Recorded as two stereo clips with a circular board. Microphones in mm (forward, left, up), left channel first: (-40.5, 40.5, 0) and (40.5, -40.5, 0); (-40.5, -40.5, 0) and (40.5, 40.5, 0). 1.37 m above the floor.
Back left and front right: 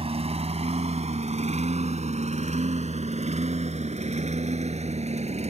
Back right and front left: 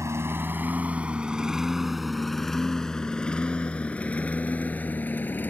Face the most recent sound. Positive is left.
turn(degrees=-60)